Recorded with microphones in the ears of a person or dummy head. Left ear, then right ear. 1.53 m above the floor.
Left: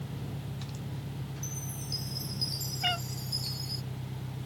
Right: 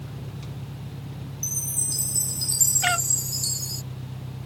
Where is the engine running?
70° right (ahead or behind).